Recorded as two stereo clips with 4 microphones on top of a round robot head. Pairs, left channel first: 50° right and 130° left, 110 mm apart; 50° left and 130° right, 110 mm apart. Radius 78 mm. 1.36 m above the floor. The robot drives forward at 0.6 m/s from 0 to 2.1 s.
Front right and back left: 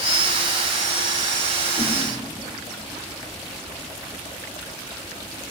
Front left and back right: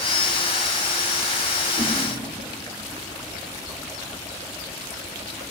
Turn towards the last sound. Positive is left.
turn(degrees=-160)